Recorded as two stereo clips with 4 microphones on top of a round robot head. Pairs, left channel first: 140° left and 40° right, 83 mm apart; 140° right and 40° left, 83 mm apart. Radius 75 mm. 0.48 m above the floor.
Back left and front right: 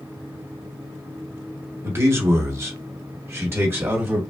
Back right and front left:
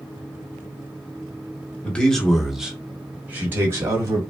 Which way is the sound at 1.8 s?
75° right.